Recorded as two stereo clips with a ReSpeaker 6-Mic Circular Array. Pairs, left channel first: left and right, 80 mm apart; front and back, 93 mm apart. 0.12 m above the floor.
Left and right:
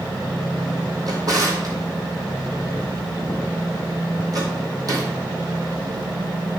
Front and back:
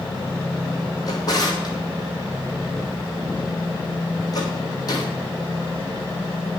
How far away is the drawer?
About 1.7 m.